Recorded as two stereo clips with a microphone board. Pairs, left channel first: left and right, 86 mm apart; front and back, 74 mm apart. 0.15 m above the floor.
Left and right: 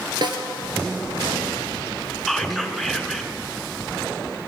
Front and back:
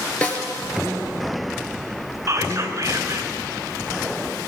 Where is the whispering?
Straight behind, 1.6 m.